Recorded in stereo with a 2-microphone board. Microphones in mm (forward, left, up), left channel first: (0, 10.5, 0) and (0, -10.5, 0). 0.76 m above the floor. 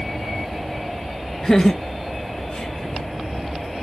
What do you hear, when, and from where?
1.4 s laughter: 25° left (ahead or behind), 0.6 m; by 3.0 s 50° left (ahead or behind), 1.8 m